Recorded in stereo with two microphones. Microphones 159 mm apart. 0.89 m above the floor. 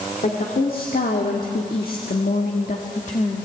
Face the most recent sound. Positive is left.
turn(degrees=40)  # may be behind; listen again after turning